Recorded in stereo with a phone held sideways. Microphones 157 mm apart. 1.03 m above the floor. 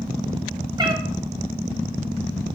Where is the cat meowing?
25° right (ahead or behind), 1.1 m.